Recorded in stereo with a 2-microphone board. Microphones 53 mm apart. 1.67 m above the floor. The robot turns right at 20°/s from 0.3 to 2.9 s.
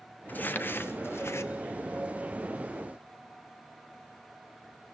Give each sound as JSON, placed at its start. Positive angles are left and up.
{"t": 0.3, "sound": "crumpling", "side_deg": 35, "distance_m": 1.3}